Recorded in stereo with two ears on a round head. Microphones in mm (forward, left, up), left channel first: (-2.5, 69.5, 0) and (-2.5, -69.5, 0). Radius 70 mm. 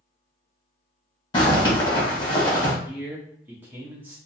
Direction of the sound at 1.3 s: 30° left (ahead or behind).